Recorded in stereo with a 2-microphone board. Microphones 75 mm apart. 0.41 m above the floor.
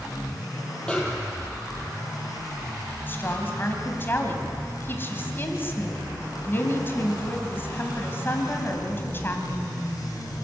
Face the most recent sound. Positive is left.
turn(degrees=30)  # may be behind; listen again after turning